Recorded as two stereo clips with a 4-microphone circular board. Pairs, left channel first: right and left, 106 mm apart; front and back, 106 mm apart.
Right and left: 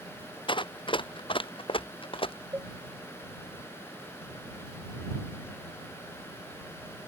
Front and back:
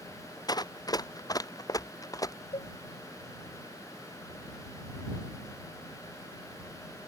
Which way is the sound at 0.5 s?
50° right.